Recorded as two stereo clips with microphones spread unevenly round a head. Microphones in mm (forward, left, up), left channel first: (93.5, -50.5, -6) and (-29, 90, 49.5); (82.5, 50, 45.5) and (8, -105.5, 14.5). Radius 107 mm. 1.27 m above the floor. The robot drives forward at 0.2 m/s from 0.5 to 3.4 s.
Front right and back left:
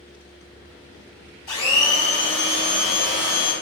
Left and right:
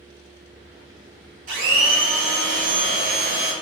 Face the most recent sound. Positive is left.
turn(degrees=-90)